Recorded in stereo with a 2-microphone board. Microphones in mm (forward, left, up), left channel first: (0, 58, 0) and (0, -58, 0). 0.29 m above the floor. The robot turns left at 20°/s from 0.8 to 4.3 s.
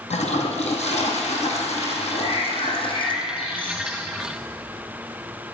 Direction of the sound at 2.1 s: 80° left.